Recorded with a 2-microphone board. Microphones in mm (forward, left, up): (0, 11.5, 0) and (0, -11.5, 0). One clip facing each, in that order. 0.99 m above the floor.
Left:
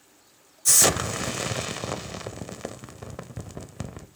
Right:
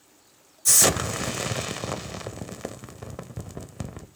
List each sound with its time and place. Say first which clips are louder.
0.7 s an explosion: even; 5° left (ahead or behind), 0.8 m